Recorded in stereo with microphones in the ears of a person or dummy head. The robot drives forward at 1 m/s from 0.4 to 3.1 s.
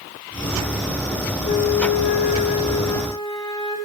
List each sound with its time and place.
1.4 s a flute: 35° left (ahead or behind), 0.6 m; by 3.8 s 15° left (ahead or behind), 1.3 m